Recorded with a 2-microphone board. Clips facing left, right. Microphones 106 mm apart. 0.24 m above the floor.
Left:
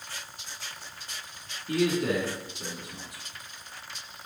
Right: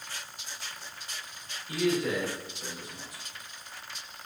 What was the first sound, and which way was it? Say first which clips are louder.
A man speaking: left 2 dB; 65° left (ahead or behind).